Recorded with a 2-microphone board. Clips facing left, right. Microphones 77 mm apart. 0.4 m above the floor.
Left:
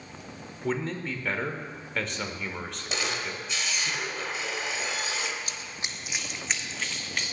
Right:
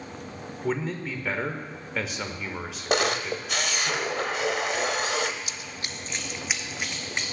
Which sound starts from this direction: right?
A camera shutter, at 2.9 s.